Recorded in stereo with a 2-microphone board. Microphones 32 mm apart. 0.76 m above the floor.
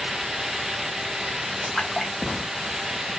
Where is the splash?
10° left (ahead or behind), 0.8 m.